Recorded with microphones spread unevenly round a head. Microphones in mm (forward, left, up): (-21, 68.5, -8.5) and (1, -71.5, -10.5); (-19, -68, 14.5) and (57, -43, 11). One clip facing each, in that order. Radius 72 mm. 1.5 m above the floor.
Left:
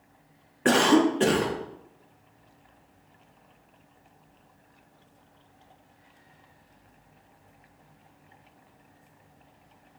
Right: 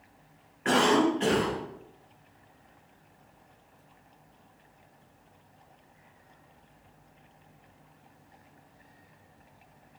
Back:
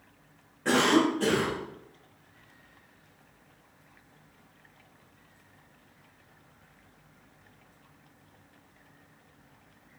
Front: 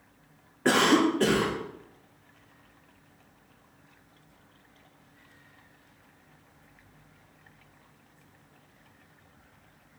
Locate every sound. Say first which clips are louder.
0.7 s a cough: left 3 dB, front 1 dB; 65° left, 0.6 m